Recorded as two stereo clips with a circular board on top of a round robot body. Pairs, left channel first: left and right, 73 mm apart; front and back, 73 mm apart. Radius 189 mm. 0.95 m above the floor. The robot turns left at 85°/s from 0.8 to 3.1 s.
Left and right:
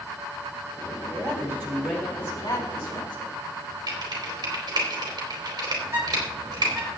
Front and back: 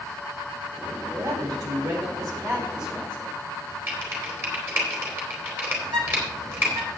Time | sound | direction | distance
1.1 | a man speaking | 115° right | 3.5 m
3.9 | typing on a keyboard | 120° right | 3.5 m
5.8 | a bird | 150° right | 7.5 m